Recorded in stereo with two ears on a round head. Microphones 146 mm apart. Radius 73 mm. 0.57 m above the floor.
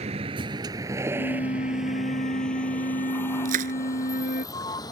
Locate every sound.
0.0 s a vehicle: 40° right (ahead or behind); by 4.9 s 25° left (ahead or behind)
1.1 s a flute: 50° left (ahead or behind)
3.5 s crushing: 50° right (ahead or behind)